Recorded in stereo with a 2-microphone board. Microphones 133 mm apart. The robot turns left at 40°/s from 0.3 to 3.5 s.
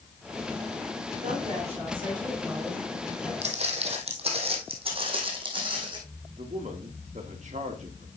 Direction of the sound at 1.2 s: 110° right.